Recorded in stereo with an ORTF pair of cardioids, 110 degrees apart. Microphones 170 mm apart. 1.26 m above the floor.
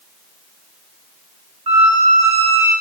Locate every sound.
1.7 s a squeak: 35° right, 1.3 m